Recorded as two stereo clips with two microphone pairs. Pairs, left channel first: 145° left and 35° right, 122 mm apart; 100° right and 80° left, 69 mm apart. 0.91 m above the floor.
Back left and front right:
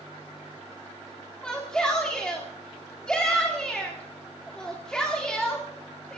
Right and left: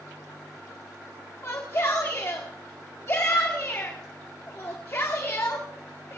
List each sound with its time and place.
1.4 s a shout: 135° right, 1.9 m